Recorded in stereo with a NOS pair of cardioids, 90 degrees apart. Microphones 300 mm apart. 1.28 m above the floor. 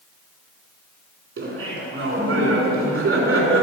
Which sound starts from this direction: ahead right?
Laughter, at 1.4 s.